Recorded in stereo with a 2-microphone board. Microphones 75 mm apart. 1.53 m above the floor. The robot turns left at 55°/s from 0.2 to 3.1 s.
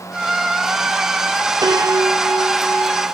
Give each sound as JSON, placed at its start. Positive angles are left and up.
{"t": 1.6, "sound": "a piano", "azimuth_deg": -110, "distance_m": 0.8}